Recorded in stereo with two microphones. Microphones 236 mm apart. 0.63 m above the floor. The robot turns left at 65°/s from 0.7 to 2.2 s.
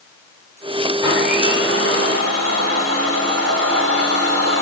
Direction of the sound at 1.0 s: 15° right.